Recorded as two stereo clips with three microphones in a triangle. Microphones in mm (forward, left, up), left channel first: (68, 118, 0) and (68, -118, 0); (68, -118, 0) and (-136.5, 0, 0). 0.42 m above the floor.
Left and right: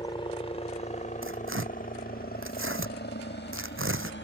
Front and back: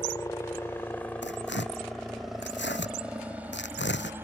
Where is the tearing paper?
65° right.